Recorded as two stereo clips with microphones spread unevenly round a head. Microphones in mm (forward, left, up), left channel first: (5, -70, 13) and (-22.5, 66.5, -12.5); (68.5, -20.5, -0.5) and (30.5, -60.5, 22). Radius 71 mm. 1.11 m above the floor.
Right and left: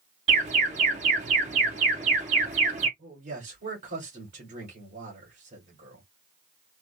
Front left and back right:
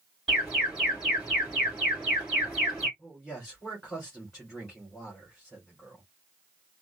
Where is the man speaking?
135° left, 4.5 m.